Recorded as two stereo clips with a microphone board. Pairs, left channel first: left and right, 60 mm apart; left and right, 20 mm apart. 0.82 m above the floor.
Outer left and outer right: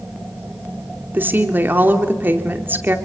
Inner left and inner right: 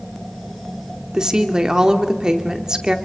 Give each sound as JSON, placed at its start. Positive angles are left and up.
{"t": 1.1, "sound": "a woman speaking", "side_deg": -35, "distance_m": 2.5}